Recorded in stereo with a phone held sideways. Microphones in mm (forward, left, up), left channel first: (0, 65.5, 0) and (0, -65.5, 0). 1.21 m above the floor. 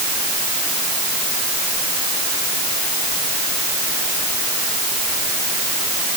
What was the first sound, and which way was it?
Only background noise.